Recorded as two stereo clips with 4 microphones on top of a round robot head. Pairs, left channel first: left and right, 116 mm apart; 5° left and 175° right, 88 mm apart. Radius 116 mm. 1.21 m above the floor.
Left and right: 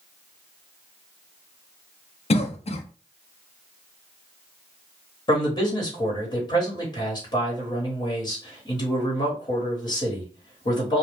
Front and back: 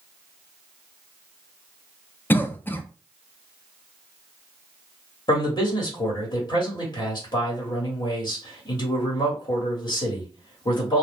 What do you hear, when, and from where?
2.3 s a cough: 75° left, 0.7 m
5.3 s a man speaking: 45° left, 1.3 m